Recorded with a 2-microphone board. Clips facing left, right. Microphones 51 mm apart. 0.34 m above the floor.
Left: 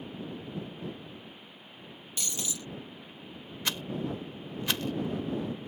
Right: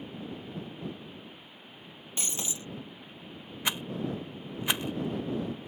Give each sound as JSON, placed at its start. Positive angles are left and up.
{"t": 2.2, "sound": "breaking glass", "side_deg": -30}
{"t": 3.6, "sound": "a rattle", "side_deg": -15}